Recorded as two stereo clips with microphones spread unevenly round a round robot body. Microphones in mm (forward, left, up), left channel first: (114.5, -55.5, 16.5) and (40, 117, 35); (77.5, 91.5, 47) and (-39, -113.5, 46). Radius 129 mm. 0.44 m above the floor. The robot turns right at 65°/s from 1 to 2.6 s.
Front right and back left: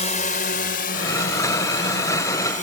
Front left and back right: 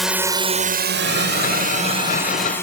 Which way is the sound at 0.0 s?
30° right.